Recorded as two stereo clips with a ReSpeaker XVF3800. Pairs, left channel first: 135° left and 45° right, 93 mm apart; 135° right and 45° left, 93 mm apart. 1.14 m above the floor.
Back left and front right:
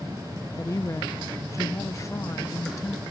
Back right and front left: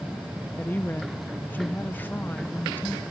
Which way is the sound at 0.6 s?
170° left.